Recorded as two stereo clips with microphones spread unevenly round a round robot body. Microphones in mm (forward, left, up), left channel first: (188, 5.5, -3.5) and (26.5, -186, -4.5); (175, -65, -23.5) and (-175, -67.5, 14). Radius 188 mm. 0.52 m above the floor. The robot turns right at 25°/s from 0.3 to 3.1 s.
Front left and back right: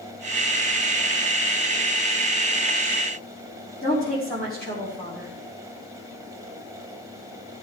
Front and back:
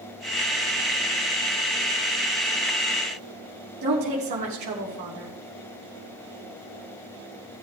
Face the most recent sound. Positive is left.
turn(degrees=120)